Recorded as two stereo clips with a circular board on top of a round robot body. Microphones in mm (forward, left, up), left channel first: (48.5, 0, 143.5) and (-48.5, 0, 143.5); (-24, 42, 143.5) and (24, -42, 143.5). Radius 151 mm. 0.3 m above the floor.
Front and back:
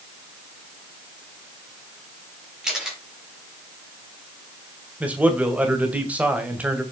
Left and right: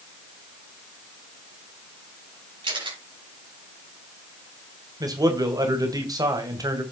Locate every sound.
2.6 s a camera shutter: 95° right, 6 m
5.0 s a man speaking: 105° right, 2.5 m